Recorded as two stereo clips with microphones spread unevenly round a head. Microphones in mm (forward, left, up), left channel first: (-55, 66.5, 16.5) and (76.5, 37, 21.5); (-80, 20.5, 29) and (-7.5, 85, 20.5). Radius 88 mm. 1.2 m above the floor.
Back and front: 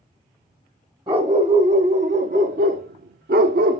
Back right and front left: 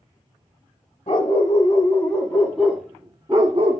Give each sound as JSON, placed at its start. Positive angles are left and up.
{"t": 1.1, "sound": "a dog barking", "azimuth_deg": -75, "distance_m": 2.5}